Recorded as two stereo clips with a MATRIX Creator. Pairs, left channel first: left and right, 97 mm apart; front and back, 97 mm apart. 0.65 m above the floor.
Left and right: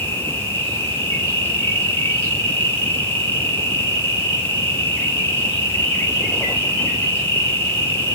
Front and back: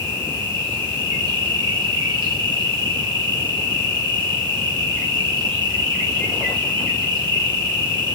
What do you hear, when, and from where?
0.0 s an insect: 145° left, 1.6 m